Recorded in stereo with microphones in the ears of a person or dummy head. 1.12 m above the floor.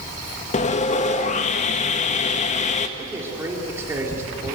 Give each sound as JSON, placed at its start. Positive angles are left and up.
{"t": 0.5, "sound": "sawing", "side_deg": 35, "distance_m": 1.1}
{"t": 3.0, "sound": "a man speaking", "side_deg": -15, "distance_m": 4.0}